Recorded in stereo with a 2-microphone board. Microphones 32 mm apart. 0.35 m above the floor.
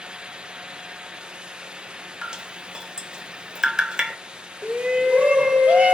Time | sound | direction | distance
2.2 | dripping | 25° right (ahead or behind) | 0.6 m
4.6 | a shout | 45° right (ahead or behind) | 1.3 m